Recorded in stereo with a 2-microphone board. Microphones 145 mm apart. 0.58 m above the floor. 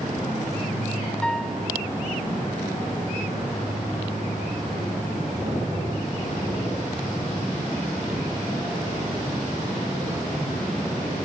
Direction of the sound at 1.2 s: 5° left (ahead or behind).